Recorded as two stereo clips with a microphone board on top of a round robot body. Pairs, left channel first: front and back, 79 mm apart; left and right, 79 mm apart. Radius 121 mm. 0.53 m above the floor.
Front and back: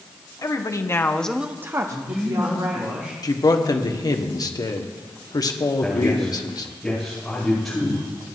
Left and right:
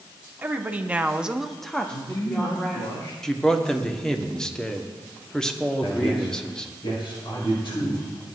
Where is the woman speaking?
25° right, 1.5 m; by 2.9 s 160° left, 2.5 m.